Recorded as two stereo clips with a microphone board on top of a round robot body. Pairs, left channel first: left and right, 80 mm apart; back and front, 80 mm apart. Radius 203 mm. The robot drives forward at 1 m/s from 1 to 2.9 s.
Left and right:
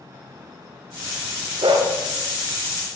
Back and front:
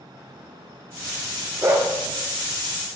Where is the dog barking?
60° right, 1.6 m; by 1.9 s 70° right, 1.5 m.